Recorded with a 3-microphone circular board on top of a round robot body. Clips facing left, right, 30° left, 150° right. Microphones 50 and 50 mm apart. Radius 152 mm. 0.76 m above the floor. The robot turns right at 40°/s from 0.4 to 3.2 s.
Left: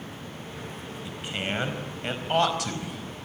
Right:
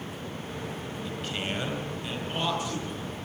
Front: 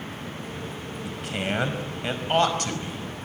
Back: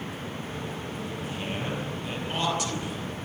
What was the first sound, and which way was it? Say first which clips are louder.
A man speaking: left 2 dB, front 7 dB; 10° left.